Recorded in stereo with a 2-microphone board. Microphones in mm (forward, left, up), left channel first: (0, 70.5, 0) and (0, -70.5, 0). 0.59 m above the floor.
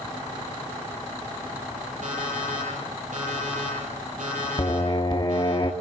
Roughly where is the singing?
Left.